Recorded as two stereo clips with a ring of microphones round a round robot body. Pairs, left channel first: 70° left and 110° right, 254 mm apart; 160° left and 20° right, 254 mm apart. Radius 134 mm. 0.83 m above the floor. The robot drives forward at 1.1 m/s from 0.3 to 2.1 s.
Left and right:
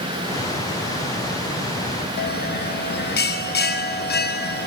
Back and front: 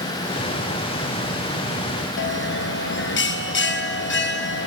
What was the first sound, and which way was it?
A bell, 115° left.